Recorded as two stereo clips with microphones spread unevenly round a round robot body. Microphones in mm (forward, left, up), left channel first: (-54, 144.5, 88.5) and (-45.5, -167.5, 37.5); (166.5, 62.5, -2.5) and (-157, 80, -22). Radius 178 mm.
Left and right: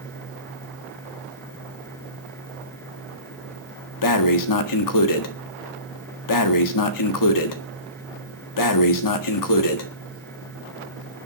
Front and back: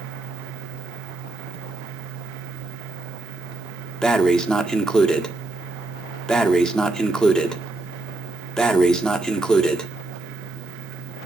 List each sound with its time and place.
4.0 s breathing: 85° left, 1.8 m